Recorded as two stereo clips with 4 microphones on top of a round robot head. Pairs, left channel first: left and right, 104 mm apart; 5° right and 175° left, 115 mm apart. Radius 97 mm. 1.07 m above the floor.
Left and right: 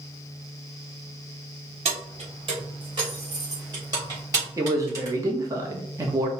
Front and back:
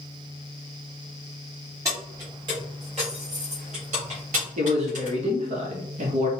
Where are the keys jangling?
115° right, 1.6 m; by 5.2 s 150° right, 3.5 m.